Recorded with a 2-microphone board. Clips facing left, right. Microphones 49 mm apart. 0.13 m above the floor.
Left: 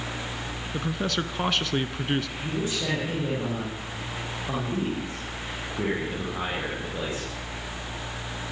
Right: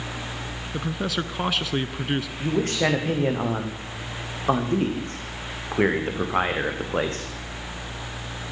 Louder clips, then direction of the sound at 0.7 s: Right 1 dB; 5° right (ahead or behind).